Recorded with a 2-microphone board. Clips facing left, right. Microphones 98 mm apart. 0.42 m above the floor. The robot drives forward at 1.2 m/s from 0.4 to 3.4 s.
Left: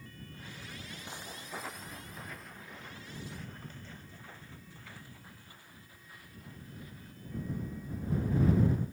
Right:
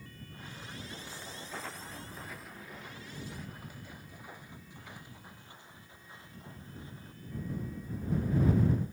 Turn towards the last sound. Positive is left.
turn(degrees=-30)  # may be behind; listen again after turning